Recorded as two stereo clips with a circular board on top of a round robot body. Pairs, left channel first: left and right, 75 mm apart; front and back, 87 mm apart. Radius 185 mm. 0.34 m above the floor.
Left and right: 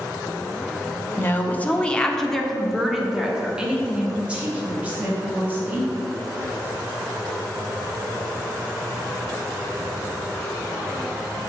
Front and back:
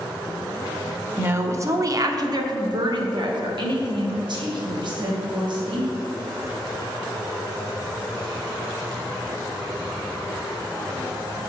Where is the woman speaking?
130° left, 1.0 m; by 5.9 s 155° right, 2.5 m.